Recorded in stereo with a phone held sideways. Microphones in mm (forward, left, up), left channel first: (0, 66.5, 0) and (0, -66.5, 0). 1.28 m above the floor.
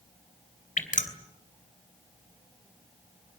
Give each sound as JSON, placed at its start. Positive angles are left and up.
{"t": 0.8, "sound": "dripping", "side_deg": 75, "distance_m": 3.0}